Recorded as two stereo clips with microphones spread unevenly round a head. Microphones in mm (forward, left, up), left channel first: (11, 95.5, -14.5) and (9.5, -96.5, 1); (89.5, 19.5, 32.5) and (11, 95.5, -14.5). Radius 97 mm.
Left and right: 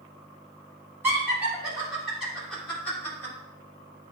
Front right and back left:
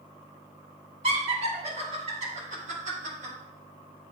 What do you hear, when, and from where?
1.0 s laughter: 170° right, 2.5 m; by 3.3 s 165° left, 3 m